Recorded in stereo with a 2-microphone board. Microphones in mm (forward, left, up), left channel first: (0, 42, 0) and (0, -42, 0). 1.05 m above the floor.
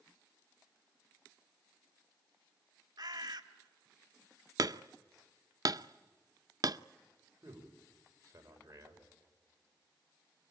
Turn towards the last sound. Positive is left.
turn(degrees=-35)  # may be behind; listen again after turning